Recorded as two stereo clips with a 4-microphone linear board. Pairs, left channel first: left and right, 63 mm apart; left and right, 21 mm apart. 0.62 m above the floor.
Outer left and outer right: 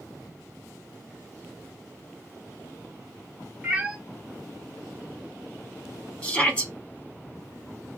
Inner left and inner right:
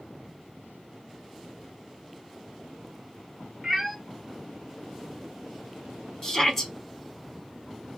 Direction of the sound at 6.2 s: 20° left (ahead or behind).